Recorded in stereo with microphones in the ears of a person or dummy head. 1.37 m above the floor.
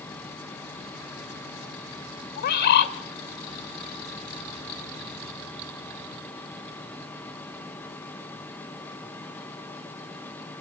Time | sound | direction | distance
0.0 | a fan | 10° left (ahead or behind) | 1.9 m
2.4 | a bird | 60° left (ahead or behind) | 2.0 m